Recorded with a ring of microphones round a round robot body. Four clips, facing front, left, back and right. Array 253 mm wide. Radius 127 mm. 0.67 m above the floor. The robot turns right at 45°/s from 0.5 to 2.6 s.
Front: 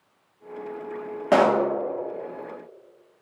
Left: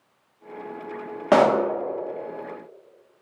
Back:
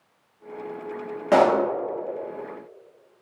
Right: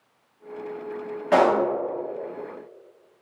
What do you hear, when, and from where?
1.3 s a pop: 85° left, 0.9 m; by 1.6 s 95° left, 0.9 m